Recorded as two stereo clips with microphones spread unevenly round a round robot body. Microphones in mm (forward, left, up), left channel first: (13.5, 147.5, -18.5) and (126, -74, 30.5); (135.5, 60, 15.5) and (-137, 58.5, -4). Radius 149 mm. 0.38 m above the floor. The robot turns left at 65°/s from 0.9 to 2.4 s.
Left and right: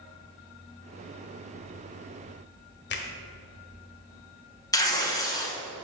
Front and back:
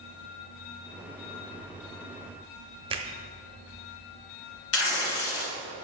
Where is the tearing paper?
40° left, 1.5 m.